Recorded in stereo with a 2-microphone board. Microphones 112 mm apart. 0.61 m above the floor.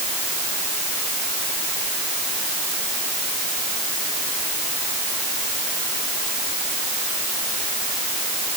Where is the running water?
No running water in this recording.